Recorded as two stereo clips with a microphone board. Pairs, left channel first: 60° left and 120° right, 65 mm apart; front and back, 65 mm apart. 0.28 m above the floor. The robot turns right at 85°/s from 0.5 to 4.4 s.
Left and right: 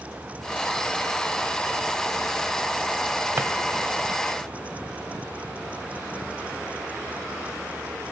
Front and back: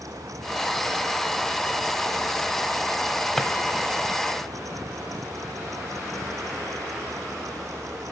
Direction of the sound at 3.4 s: 80° right.